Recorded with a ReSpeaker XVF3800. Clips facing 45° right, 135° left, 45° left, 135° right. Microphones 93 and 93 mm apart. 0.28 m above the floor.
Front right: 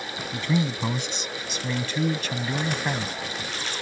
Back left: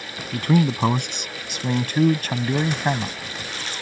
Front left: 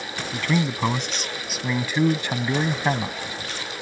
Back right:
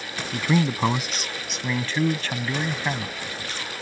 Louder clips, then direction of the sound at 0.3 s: Back left 6 dB, back right 2 dB; 150° left.